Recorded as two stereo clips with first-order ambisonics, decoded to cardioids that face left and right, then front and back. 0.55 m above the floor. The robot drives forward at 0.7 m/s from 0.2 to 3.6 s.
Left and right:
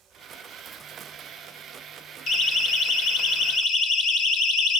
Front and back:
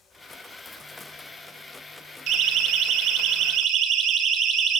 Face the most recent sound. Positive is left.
turn(degrees=125)